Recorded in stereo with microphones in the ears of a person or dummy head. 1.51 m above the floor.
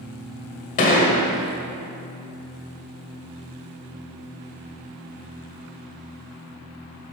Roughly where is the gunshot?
Left.